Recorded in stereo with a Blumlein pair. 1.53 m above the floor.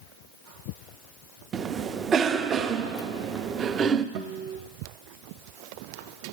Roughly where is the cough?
Ahead right.